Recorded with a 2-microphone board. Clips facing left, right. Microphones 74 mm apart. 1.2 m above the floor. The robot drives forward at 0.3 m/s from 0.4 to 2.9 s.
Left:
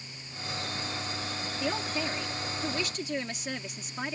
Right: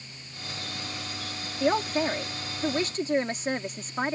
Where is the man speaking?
45° right (ahead or behind); by 4.2 s 40° right (ahead or behind).